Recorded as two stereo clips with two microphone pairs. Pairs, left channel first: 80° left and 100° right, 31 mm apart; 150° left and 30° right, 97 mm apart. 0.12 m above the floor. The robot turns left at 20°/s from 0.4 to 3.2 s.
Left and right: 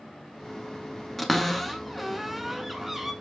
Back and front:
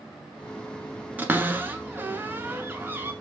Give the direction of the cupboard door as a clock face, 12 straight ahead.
12 o'clock.